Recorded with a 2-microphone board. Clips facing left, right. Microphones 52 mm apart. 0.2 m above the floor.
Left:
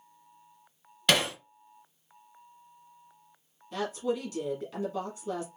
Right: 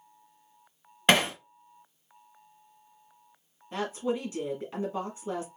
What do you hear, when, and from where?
1.1 s hammering: 30° right (ahead or behind), 1.0 m
3.7 s a woman speaking: 30° right (ahead or behind), 1.6 m